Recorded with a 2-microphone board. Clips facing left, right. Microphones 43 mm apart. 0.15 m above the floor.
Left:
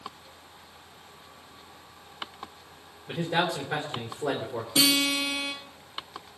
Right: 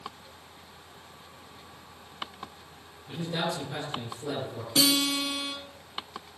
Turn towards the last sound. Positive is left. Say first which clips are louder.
# left 1 dB
turn(degrees=15)  # may be behind; listen again after turning